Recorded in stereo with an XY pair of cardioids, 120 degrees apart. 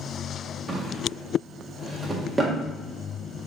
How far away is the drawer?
About 1.6 m.